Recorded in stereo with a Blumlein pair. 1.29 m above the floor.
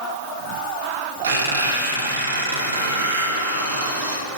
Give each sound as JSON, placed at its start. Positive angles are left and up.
{"t": 1.2, "sound": "a squeak", "azimuth_deg": -65, "distance_m": 2.5}